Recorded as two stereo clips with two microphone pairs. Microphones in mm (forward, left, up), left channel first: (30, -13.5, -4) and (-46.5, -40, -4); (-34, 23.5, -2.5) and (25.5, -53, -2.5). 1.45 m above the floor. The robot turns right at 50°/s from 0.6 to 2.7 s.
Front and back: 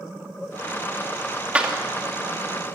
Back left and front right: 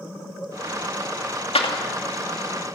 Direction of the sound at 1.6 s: 125° left.